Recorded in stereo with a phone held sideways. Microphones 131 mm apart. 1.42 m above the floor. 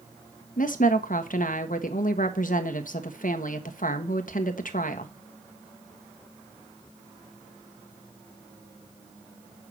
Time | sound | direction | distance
0.6 | a woman speaking | 75° left (ahead or behind) | 1.3 m